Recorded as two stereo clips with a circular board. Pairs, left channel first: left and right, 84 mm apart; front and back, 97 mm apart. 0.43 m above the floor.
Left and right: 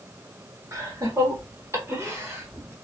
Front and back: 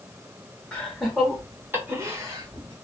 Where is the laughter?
75° right, 1.2 m; by 2.7 s 145° right, 1.5 m.